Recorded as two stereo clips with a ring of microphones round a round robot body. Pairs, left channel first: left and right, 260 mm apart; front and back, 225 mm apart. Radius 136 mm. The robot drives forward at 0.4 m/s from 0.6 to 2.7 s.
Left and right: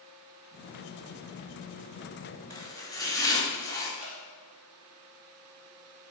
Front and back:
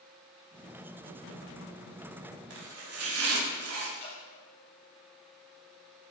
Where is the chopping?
165° left, 1.7 m; by 3.9 s 170° left, 1.8 m.